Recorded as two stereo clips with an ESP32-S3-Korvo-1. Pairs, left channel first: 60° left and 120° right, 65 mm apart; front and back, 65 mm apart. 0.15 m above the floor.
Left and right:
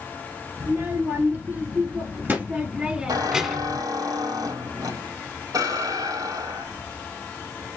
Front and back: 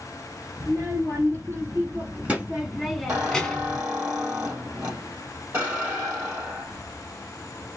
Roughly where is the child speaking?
Behind right.